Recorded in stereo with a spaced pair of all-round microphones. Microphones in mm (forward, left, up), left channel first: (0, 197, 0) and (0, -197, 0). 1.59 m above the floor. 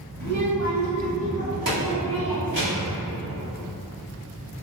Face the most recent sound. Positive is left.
turn(degrees=-75)  # may be behind; listen again after turning